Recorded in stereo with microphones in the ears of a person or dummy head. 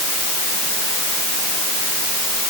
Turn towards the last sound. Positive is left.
No sound to turn to.